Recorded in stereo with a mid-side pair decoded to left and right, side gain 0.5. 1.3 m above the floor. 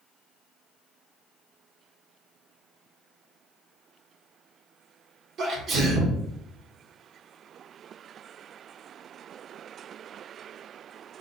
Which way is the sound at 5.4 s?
55° right.